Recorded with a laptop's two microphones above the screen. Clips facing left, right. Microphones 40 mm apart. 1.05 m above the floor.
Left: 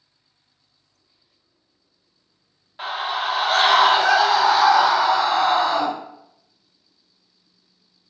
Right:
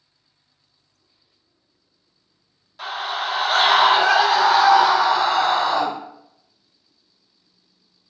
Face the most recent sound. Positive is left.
turn(degrees=-65)  # may be behind; listen again after turning